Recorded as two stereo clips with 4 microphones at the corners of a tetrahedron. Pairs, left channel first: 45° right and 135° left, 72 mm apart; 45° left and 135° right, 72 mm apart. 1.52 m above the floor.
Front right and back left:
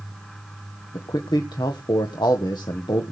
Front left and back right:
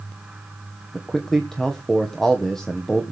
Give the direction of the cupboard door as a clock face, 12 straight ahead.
I don't hear a cupboard door.